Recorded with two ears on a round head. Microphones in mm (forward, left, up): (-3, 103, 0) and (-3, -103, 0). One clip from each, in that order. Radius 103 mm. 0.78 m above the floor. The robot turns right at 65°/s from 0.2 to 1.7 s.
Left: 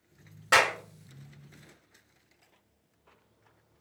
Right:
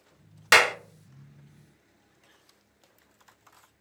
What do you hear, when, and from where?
0.5 s a clap: 75° right (ahead or behind), 0.6 m; by 0.8 s 65° right (ahead or behind), 0.6 m